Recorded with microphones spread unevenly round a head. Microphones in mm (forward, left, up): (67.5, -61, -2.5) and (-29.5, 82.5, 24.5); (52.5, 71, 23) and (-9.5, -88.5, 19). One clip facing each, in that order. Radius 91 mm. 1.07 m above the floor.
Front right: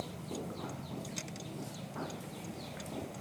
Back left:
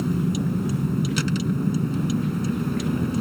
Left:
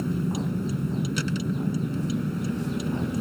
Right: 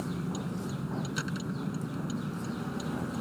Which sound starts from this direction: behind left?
A vehicle, at 0.0 s.